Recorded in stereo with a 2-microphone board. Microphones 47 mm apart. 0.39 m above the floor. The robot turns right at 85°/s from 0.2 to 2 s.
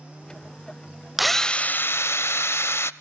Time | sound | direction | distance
1.2 | a drill | 5° right | 0.5 m